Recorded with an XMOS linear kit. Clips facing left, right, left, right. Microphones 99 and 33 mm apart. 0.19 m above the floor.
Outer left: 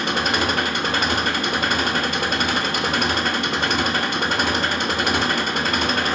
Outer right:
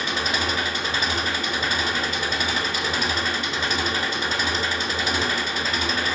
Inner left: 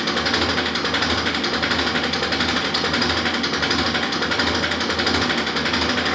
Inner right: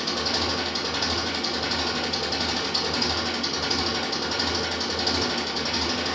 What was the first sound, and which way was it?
An engine running, 60° left (ahead or behind).